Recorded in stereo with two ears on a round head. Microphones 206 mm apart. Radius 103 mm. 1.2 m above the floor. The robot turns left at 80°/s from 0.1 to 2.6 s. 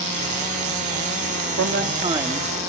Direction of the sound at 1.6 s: 115° right.